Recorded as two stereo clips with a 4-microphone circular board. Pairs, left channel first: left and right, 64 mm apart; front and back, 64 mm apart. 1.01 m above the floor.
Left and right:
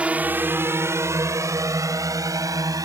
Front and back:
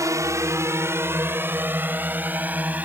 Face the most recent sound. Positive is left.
turn(degrees=-115)